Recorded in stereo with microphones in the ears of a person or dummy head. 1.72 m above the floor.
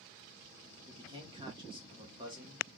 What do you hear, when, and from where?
0.9 s a man speaking: 25° right (ahead or behind), 1.2 m